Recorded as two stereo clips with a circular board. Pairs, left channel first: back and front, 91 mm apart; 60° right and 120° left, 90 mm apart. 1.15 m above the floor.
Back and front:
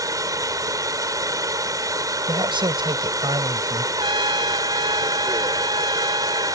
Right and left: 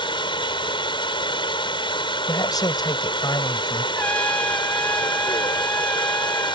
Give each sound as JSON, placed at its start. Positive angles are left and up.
{"t": 0.0, "sound": "running water", "azimuth_deg": -45}
{"t": 2.3, "sound": "a man speaking", "azimuth_deg": -20}
{"t": 4.0, "sound": "a trumpet", "azimuth_deg": 15}